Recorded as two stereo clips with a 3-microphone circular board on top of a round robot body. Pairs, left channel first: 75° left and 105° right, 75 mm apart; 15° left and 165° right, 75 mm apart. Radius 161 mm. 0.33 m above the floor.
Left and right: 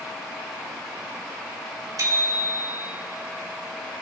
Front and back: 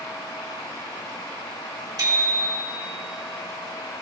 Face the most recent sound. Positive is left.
turn(degrees=-140)